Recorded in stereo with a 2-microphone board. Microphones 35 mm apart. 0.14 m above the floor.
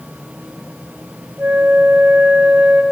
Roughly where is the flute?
Right.